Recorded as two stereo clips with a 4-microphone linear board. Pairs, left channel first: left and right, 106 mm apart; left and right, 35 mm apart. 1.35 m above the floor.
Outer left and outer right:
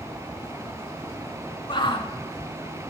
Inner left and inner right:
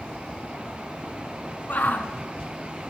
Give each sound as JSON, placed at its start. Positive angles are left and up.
{"t": 1.7, "sound": "a shout", "side_deg": 50, "distance_m": 2.0}